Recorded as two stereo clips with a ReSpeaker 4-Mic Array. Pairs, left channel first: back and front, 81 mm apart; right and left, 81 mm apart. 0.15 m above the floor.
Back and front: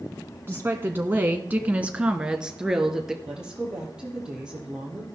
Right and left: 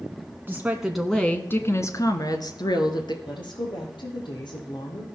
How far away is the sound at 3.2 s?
About 5 m.